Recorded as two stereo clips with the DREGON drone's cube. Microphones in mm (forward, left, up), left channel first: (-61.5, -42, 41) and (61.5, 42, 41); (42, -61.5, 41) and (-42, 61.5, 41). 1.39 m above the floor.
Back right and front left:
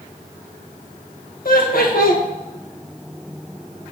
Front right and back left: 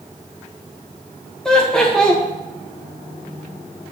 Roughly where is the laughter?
Behind right.